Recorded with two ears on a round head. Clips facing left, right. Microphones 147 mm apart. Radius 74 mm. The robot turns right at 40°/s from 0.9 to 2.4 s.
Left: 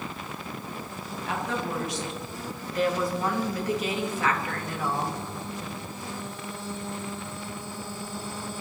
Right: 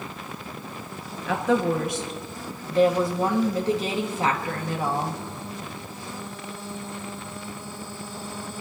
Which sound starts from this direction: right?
A woman speaking, at 1.3 s.